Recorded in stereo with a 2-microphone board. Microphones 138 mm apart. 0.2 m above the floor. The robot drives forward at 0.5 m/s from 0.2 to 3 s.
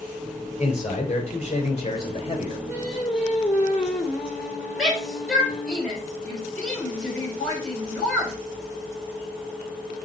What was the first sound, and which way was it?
A man speaking, 50° left (ahead or behind).